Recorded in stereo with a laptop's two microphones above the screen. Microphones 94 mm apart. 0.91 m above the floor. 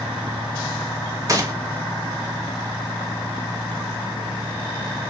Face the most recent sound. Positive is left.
turn(degrees=-35)  # may be behind; listen again after turning